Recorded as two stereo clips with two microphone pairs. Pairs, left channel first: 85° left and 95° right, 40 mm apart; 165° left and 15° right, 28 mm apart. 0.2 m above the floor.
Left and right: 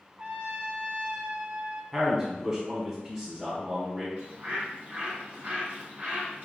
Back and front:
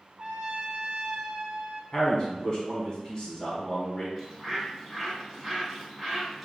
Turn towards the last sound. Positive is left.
turn(degrees=-105)